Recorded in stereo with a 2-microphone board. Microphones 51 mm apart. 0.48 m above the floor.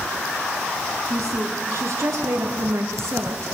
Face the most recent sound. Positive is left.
turn(degrees=-75)  # may be behind; listen again after turning